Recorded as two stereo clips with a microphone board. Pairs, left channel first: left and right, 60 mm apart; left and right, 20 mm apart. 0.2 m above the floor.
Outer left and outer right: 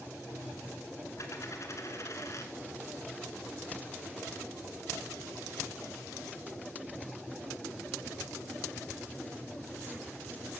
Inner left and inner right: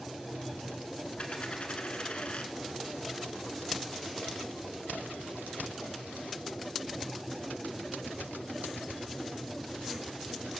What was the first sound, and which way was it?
A dropped coin, 55° left (ahead or behind).